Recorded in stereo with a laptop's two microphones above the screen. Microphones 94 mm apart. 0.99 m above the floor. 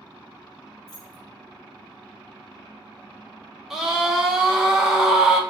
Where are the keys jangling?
50° left (ahead or behind), 1.6 m.